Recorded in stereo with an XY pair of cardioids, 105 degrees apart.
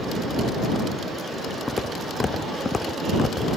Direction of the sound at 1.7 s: 25° left.